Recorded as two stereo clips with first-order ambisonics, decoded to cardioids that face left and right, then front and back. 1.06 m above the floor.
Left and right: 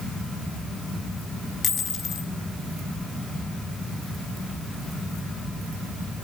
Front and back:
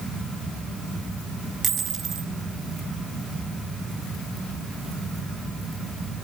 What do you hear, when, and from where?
1.6 s a dropped coin: 145° left, 1.2 m